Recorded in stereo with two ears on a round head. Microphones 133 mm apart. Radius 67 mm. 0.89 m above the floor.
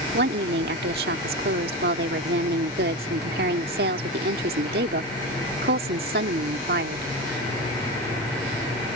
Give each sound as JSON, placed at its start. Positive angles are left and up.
{"t": 0.1, "sound": "a woman speaking", "side_deg": -80}